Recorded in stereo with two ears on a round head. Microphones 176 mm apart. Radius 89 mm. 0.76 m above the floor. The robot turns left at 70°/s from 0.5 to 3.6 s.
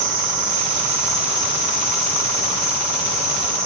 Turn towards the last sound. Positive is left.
turn(degrees=5)